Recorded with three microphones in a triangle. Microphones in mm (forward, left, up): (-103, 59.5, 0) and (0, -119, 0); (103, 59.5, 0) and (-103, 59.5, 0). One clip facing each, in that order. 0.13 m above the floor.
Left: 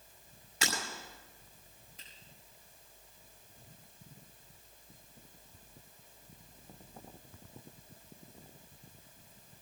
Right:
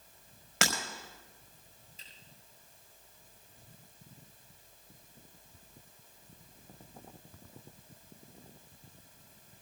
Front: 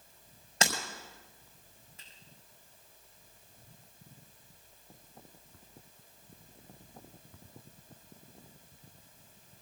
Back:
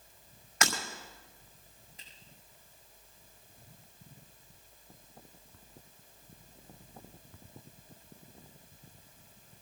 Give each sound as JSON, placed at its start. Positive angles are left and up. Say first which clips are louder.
{"t": 0.6, "sound": "breaking glass", "louder": "right 4 dB, front 1 dB", "azimuth_deg": -60, "distance_m": 5.5}
{"t": 2.0, "sound": "a finger snap", "louder": "left 1 dB, back 1 dB", "azimuth_deg": 110, "distance_m": 5.5}